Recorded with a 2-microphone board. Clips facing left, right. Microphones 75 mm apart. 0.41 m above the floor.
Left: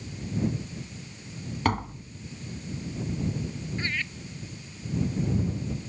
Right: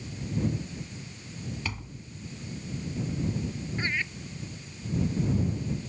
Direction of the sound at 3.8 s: 15° right (ahead or behind).